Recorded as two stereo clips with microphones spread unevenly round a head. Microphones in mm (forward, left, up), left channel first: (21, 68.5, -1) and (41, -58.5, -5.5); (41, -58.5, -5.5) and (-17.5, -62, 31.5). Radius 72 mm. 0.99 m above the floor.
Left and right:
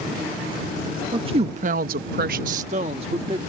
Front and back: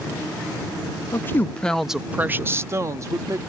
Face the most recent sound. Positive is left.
turn(degrees=-140)